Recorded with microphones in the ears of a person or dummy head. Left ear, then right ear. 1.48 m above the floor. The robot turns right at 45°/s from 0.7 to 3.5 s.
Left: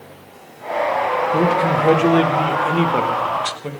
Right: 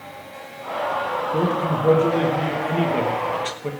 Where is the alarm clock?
No alarm clock in this recording.